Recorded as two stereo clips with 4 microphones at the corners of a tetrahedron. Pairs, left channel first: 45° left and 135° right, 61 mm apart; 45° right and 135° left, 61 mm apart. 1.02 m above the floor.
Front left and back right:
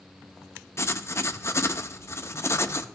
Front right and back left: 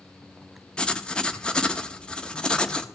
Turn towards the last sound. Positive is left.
turn(degrees=25)